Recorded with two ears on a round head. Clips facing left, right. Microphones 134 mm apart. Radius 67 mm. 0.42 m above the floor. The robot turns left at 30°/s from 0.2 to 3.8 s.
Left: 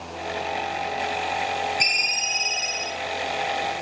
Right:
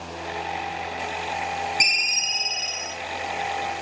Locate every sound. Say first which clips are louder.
1.8 s a ringtone: left 2 dB; 160° right, 1.3 m; by 3.0 s 165° left, 1.3 m